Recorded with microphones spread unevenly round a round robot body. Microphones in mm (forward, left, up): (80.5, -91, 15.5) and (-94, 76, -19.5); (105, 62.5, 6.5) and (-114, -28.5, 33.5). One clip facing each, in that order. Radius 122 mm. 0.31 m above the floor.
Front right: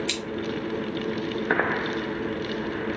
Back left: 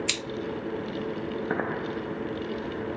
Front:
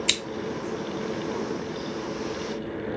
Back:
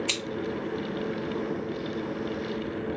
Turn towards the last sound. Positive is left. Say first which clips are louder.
# front right 4 dB, front 1 dB
turn(degrees=75)